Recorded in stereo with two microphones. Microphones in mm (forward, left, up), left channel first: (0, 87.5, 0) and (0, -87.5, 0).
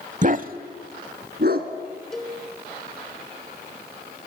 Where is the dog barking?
50° right (ahead or behind), 0.6 m; by 1.7 s 70° right (ahead or behind), 1.6 m.